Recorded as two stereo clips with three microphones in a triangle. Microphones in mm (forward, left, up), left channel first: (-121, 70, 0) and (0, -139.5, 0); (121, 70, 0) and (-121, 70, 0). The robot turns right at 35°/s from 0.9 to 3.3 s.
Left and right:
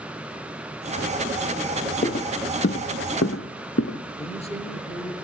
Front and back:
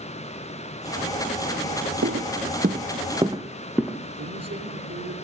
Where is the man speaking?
175° right, 6.5 m.